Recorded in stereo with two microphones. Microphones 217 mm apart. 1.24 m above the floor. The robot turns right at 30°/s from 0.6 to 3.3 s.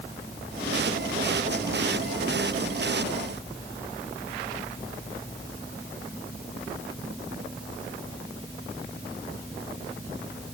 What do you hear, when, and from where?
Only background noise.